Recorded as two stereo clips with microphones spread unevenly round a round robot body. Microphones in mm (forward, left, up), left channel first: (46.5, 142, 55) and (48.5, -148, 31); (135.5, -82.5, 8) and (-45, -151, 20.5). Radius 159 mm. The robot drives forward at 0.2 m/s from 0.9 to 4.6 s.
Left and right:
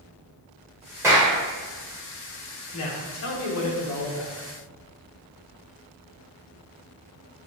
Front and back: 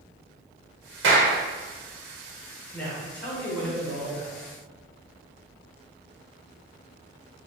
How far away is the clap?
About 1.0 m.